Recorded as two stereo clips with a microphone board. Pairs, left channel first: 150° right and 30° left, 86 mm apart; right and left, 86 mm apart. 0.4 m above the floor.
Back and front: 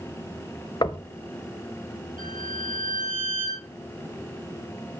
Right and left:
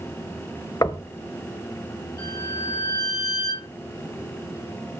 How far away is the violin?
About 7 m.